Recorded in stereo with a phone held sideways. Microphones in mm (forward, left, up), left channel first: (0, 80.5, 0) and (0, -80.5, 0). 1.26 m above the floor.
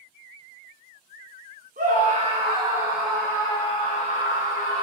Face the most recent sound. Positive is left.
turn(degrees=60)  # may be behind; listen again after turning